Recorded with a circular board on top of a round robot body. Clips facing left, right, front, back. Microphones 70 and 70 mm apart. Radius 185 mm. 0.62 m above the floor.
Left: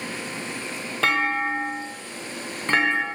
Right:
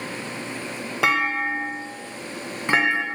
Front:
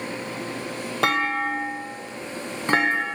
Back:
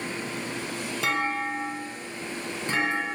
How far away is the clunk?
About 1.0 m.